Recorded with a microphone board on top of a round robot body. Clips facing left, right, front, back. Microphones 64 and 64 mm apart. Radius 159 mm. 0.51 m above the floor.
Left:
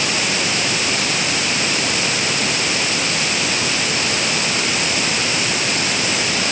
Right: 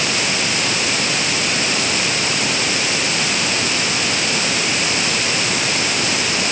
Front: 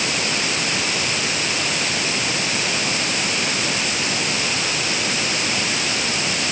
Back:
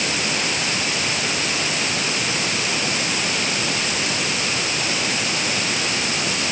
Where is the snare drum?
I don't hear a snare drum.